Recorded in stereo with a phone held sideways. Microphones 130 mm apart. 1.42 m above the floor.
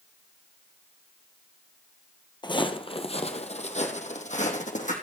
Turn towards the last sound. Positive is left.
turn(degrees=65)  # may be behind; listen again after turning